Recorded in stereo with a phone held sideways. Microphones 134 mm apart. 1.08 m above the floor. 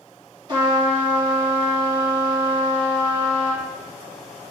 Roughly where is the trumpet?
Right.